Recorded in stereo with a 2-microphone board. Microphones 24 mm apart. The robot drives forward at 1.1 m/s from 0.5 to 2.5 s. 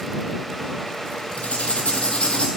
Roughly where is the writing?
Left.